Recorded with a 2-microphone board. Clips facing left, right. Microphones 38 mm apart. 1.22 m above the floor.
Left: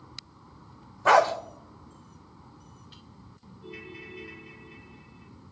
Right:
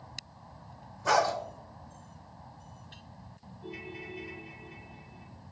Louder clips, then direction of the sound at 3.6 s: Right 1 dB; 5° left (ahead or behind).